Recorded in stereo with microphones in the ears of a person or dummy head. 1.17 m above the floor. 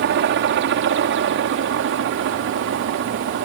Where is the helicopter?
60° right (ahead or behind).